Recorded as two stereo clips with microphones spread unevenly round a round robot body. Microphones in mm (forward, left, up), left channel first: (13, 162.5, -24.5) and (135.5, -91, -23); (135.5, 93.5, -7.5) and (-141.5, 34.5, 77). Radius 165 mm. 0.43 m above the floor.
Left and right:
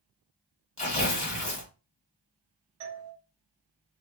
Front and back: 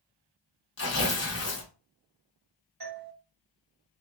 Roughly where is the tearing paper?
Ahead left.